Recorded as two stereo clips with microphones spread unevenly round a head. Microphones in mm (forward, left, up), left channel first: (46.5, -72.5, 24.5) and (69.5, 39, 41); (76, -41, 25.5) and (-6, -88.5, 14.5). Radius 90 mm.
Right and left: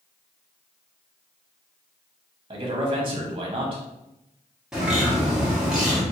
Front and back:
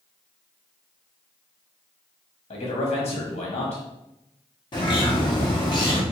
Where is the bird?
10° right, 1.7 m.